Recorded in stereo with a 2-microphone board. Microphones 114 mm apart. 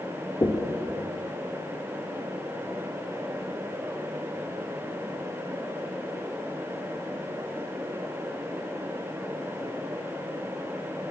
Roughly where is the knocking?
Left.